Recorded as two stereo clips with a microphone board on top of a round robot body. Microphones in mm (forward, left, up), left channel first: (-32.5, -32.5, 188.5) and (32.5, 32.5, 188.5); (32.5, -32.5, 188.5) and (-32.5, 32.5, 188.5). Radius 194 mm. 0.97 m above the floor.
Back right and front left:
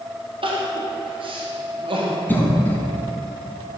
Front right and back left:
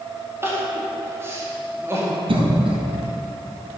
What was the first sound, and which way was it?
Crying, 70° left.